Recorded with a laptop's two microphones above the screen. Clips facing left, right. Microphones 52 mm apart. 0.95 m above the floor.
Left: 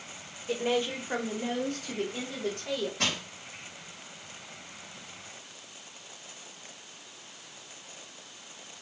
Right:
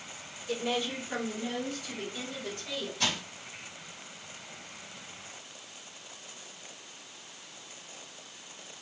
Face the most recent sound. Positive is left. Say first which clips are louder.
# left 1 dB
turn(degrees=65)  # may be behind; listen again after turning